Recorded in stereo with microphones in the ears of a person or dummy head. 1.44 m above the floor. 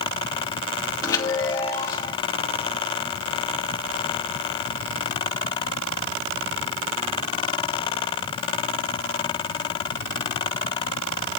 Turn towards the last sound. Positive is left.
turn(degrees=20)  # may be behind; listen again after turning